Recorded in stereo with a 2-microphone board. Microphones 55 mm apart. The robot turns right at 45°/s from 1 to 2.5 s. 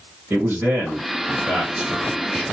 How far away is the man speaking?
About 1.6 m.